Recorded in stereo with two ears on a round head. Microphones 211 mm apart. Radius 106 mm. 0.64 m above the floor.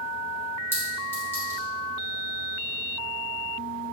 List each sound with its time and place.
0.7 s a clink: 10° left (ahead or behind), 2 m